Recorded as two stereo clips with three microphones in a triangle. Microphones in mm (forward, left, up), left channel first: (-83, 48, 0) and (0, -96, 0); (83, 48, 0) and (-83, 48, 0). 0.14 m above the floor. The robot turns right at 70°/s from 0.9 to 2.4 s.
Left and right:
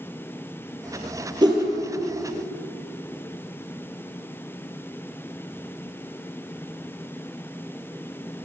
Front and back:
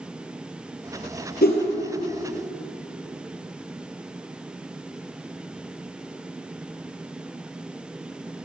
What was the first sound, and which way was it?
A whoosh, straight ahead.